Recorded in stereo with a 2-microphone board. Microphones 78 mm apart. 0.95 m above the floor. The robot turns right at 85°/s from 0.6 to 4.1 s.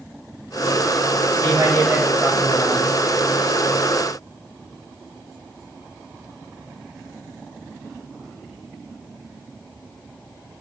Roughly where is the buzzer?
I don't hear a buzzer.